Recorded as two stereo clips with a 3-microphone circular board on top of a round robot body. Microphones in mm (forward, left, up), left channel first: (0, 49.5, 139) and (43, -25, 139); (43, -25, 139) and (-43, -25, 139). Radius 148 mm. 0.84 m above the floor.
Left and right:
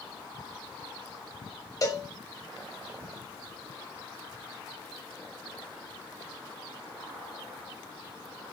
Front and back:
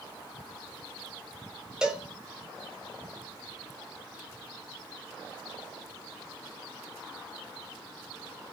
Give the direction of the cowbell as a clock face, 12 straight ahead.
9 o'clock.